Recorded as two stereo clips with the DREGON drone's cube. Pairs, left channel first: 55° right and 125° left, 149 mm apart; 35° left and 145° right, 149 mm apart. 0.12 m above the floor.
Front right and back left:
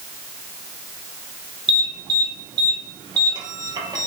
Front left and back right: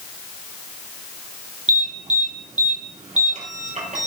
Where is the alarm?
175° right, 3 m.